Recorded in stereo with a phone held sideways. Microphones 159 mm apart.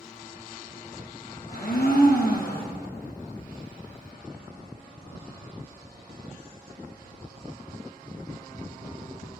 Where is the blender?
70° left (ahead or behind), 1.1 m.